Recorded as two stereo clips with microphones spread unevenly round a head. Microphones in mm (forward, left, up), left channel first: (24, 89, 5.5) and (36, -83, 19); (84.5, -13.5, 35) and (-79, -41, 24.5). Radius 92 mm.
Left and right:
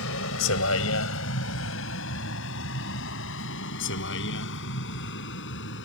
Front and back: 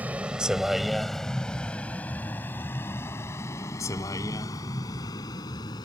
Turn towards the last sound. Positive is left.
turn(degrees=80)